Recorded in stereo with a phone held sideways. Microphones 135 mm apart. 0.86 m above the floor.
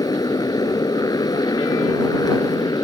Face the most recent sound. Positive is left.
turn(degrees=30)  # may be behind; listen again after turning